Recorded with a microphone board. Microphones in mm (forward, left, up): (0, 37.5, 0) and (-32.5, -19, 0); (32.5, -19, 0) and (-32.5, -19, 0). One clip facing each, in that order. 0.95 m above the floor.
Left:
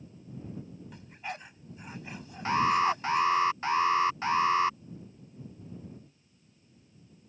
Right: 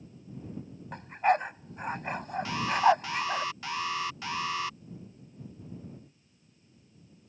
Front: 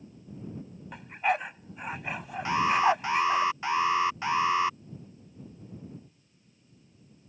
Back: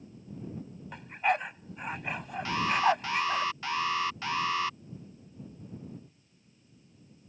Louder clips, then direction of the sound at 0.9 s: Right 16 dB, front 1 dB; 90° right.